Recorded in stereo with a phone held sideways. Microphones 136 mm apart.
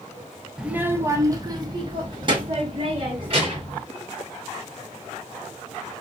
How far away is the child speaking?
About 0.5 m.